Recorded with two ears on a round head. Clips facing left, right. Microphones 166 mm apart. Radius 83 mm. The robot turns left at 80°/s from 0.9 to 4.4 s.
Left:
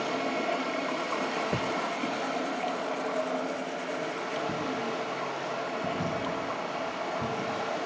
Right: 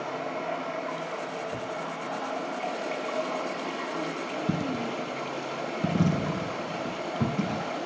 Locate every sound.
0.0 s running water: 135° left, 6.5 m; by 7.9 s 145° right, 6.5 m
1.5 s a thud: 50° left (ahead or behind), 0.8 m; by 1.8 s 65° left (ahead or behind), 0.8 m
4.5 s a dropped coin: 70° right (ahead or behind), 1.4 m